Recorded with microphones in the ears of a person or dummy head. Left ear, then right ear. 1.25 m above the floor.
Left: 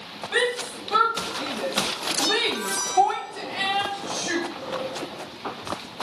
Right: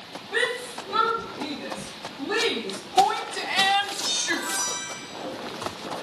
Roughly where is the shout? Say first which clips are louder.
Left 2 dB; left.